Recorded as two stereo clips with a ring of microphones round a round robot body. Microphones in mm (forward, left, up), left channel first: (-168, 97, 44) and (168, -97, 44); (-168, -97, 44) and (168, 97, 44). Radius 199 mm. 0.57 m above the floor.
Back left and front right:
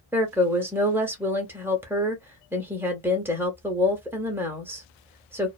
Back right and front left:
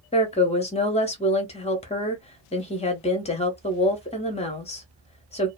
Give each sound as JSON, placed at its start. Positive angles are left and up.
{"t": 0.1, "sound": "a woman speaking", "azimuth_deg": -105, "distance_m": 0.7}